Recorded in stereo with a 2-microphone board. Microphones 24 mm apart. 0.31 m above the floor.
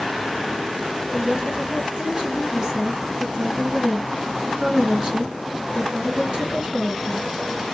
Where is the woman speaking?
40° right (ahead or behind), 3 m.